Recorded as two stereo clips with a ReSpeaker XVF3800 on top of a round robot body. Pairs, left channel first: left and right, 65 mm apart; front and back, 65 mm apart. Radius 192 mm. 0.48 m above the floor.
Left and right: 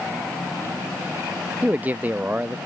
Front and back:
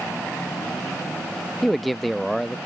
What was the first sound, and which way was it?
A man speaking, 90° right.